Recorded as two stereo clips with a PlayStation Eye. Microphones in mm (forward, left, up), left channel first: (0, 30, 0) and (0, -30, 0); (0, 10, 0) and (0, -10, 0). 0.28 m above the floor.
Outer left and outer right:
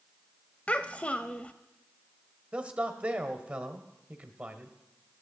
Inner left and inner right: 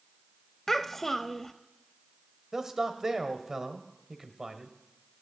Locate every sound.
0.7 s a child speaking: 25° left (ahead or behind), 0.5 m
2.5 s a man speaking: 20° right (ahead or behind), 1.2 m